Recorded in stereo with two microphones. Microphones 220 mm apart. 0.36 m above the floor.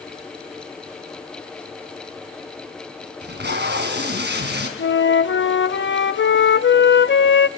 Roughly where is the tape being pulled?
Right.